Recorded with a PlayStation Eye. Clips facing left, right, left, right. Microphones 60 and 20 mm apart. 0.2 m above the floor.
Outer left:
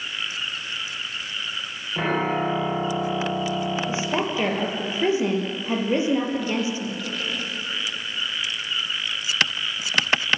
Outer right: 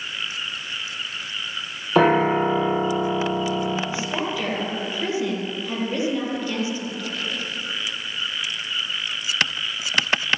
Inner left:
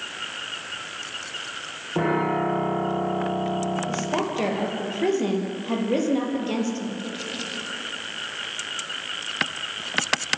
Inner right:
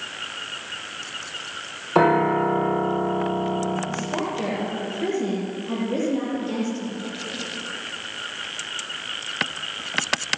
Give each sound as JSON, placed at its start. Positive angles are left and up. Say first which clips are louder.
{"t": 1.9, "sound": "a piano", "louder": "outer right 7 dB, inner right 5 dB", "side_deg": -70, "distance_m": 7.0}
{"t": 3.9, "sound": "a woman speaking", "louder": "outer left 1 dB, inner left 1 dB", "side_deg": 25, "distance_m": 5.5}